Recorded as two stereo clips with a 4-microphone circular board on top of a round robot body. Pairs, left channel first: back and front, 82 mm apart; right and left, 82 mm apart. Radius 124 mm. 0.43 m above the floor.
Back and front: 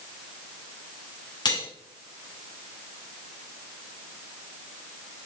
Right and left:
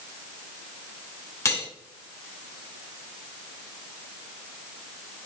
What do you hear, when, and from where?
1.4 s cutlery clinking: 140° right, 3.5 m